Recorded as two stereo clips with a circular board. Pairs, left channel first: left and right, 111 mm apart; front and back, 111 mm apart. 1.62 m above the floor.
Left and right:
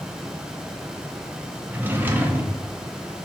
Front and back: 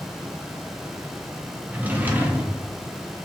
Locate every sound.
1.7 s a drawer: 130° right, 0.7 m